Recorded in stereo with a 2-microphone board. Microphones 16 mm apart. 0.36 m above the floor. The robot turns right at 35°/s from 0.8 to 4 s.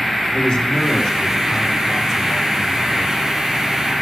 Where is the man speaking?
115° left, 4.5 m; by 3.2 s 160° right, 4.5 m.